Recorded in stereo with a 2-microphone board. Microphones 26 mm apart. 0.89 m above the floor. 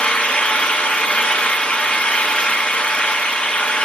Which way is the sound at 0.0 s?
55° left (ahead or behind).